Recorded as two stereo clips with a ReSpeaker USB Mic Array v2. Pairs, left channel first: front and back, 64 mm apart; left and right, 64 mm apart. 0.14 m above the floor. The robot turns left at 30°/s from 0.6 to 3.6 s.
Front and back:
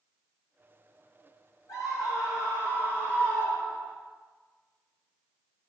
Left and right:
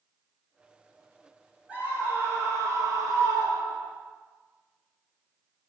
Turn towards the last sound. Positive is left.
turn(degrees=-75)